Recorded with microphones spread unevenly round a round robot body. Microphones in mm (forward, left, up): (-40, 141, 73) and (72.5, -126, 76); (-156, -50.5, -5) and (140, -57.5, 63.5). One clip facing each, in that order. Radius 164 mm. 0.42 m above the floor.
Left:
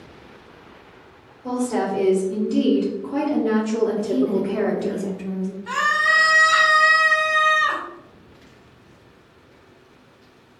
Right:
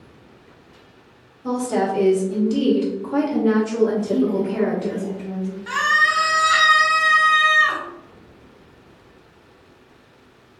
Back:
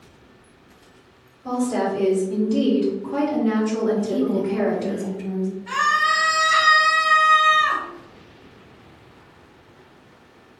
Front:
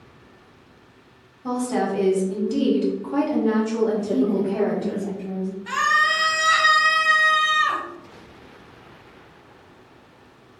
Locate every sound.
1.4 s a woman speaking: 20° right, 1.9 m; by 5.0 s 170° left, 1.6 m
4.0 s a woman speaking: 160° left, 1.0 m
5.7 s a scream: 20° right, 1.7 m